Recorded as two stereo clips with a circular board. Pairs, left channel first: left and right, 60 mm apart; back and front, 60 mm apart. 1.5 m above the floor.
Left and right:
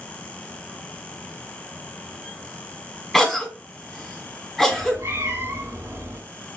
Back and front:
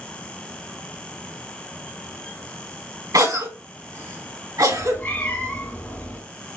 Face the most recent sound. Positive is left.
turn(degrees=-130)